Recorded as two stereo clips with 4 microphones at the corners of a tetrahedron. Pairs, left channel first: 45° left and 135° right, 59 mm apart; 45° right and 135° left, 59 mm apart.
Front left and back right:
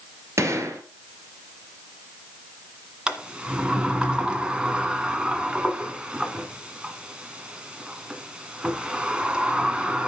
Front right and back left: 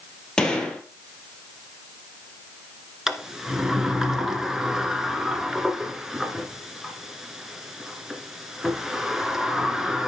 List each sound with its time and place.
0.4 s a gunshot: 120° right, 2 m
3.1 s a sliding door: 155° right, 1.3 m